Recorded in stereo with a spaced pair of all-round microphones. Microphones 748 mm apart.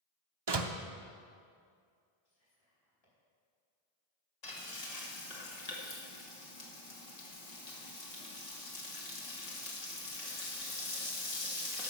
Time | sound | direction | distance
0.5 | a door slam | 35° right (ahead or behind) | 0.7 m
2.2 | whispering | 50° left (ahead or behind) | 4.5 m
4.4 | frying | 60° left (ahead or behind) | 1.8 m